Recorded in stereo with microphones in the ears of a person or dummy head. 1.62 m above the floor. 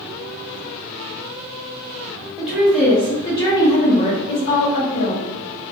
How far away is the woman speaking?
About 1.2 m.